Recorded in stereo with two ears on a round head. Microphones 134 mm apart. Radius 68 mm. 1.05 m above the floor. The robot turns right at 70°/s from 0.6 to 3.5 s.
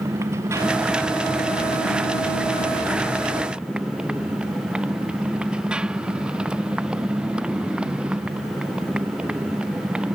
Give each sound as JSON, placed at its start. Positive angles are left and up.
{"t": 0.0, "sound": "a motorcycle", "azimuth_deg": -15}